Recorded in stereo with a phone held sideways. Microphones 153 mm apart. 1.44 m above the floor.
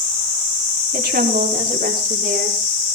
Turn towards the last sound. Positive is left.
turn(degrees=-70)  # may be behind; listen again after turning